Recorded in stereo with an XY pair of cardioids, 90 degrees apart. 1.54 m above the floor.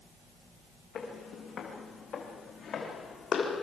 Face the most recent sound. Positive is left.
turn(degrees=55)